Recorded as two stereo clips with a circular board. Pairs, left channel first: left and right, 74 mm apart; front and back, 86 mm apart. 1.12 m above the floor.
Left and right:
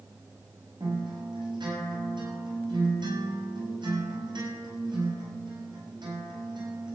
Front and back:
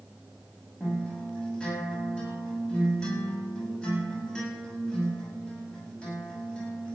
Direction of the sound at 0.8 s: 80° right.